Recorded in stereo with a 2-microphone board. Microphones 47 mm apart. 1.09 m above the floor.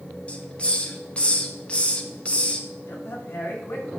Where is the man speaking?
60° left (ahead or behind), 2.5 m.